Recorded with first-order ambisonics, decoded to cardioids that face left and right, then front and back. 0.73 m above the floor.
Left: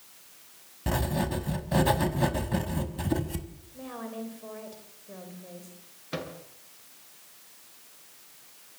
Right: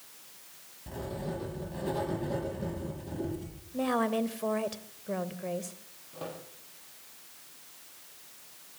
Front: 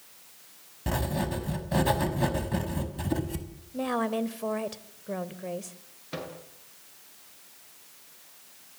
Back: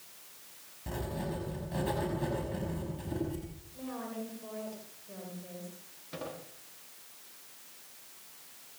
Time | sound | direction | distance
0.9 | writing | 55° left | 5 m
3.7 | a woman speaking | 40° right | 3 m
6.1 | a microwave | 65° left | 9 m